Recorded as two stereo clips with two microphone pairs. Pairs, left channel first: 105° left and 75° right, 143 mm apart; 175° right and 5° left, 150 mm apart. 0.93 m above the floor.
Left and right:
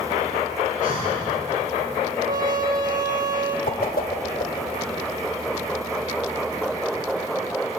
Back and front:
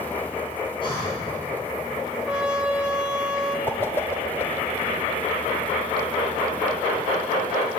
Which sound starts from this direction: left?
A whoosh, at 3.7 s.